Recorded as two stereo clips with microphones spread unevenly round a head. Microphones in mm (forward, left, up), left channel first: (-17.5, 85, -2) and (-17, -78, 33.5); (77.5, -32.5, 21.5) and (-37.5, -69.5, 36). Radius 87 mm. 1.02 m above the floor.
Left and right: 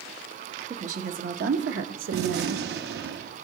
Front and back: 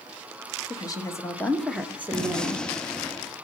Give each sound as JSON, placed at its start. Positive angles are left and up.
{"t": 0.7, "sound": "a woman speaking", "azimuth_deg": -35, "distance_m": 1.5}
{"t": 2.1, "sound": "a gunshot", "azimuth_deg": -65, "distance_m": 0.7}